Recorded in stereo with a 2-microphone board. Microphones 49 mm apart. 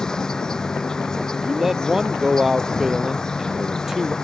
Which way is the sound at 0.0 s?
15° left (ahead or behind).